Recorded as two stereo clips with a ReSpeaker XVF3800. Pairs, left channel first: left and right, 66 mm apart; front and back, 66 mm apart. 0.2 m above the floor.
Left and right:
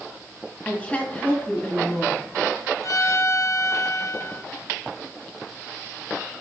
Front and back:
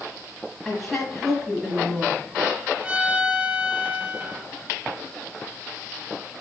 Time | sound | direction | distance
0.7 | a woman speaking | 85° left | 1.6 m
2.8 | a violin | 115° left | 0.8 m